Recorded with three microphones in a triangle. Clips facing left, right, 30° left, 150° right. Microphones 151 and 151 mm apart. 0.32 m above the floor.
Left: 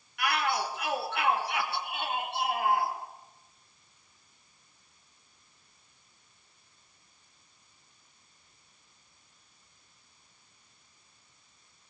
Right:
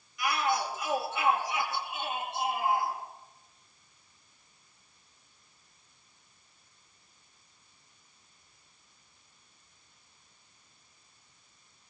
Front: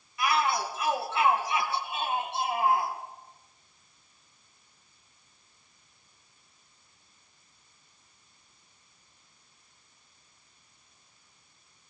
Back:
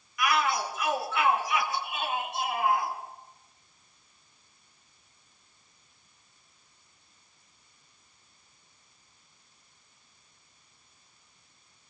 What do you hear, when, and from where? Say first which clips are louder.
0.2 s a shout: even, even; 90° left, 4 m